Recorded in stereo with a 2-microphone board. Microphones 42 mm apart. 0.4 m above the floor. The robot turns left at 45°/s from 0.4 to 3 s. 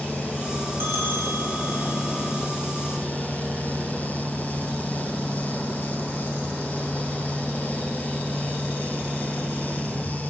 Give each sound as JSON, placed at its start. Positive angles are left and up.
{"t": 0.8, "sound": "a bell", "azimuth_deg": -110, "distance_m": 2.0}